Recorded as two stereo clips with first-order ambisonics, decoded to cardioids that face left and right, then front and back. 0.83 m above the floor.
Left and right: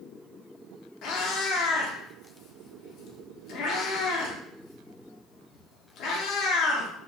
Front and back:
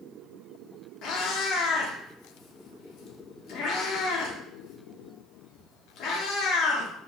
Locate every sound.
1.0 s a cat meowing: 45° left, 0.5 m